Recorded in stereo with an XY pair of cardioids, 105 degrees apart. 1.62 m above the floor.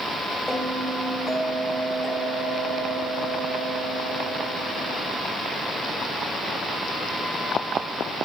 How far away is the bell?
About 8.5 m.